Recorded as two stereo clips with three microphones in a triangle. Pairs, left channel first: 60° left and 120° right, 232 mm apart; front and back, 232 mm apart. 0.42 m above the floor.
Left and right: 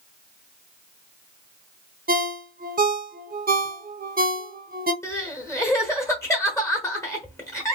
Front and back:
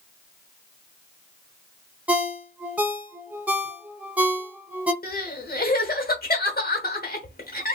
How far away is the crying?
About 1.0 m.